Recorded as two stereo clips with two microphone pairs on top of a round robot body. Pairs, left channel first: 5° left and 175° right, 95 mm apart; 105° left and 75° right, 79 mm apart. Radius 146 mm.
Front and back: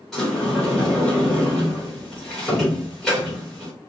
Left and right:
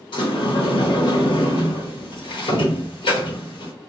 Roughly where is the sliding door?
Left.